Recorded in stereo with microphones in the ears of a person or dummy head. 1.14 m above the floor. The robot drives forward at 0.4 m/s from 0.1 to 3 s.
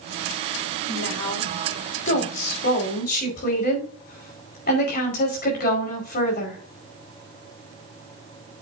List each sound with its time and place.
0.9 s a woman speaking: 60° left (ahead or behind), 4.5 m; by 6.6 s 50° left (ahead or behind), 5 m